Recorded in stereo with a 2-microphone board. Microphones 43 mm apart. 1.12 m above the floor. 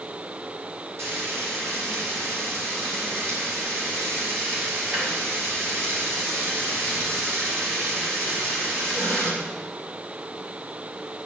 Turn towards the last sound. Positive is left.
turn(degrees=-85)